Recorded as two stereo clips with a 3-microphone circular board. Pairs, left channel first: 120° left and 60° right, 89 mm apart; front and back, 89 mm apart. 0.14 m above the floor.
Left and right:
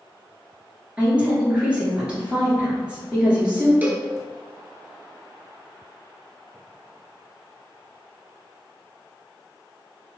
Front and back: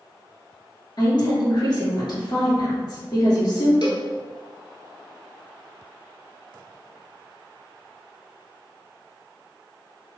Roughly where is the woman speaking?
Ahead.